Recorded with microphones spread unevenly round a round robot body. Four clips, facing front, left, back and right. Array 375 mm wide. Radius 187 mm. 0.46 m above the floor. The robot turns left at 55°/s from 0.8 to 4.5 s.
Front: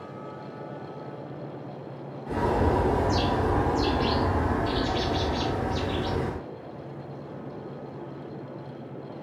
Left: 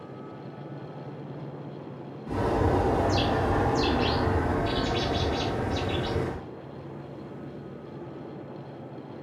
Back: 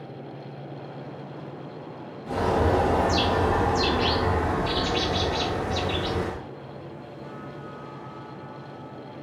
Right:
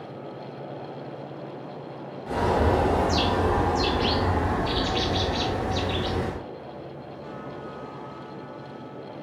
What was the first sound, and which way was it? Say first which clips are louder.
A bird: right 3 dB, back 2 dB; 120° right.